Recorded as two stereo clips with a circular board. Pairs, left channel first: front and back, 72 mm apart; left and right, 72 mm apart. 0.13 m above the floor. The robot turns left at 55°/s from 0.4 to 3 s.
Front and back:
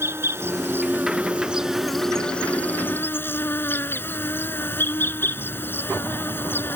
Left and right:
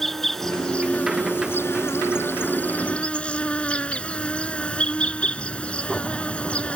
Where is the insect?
170° left; by 6.8 s 30° left.